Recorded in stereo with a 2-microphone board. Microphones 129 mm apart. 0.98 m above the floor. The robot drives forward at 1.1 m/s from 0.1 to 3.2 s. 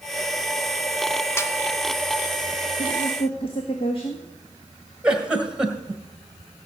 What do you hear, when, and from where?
1.4 s a snare drum: 20° left (ahead or behind), 0.9 m
2.8 s a woman speaking: 55° left (ahead or behind), 1.4 m; by 4.2 s 45° left (ahead or behind), 1.6 m
5.0 s a giggle: 5° right (ahead or behind), 1.7 m